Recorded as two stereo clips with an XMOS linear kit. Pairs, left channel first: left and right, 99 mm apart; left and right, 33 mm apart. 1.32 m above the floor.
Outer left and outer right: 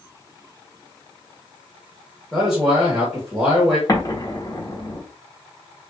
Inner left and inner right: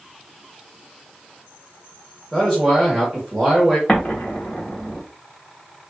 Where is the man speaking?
5° right (ahead or behind), 1.8 m.